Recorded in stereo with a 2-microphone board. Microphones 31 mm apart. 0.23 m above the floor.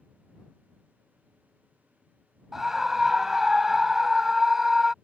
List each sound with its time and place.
2.5 s a scream: 10° right (ahead or behind)